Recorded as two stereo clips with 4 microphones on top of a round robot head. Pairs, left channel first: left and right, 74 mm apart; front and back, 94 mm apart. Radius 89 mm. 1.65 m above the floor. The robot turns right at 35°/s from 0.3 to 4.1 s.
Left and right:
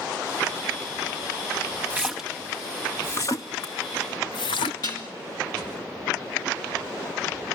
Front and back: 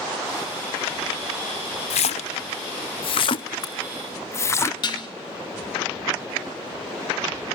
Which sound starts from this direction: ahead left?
Dishes clattering, at 4.8 s.